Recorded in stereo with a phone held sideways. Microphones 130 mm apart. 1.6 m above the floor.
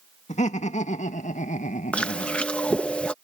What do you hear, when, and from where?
0.3 s laughter: 60° left (ahead or behind)
1.9 s chewing: 10° left (ahead or behind)